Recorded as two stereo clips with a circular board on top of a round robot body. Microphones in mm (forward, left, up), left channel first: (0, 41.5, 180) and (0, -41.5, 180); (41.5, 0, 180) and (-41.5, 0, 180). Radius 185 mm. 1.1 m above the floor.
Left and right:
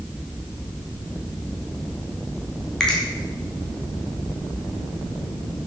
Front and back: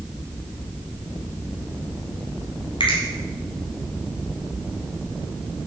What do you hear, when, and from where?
2.8 s a finger snap: 5° left, 2.5 m